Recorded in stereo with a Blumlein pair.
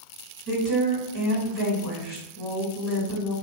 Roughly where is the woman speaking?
Ahead right.